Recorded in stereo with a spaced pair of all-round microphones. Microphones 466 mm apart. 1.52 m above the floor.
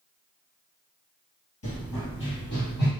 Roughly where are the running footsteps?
Left.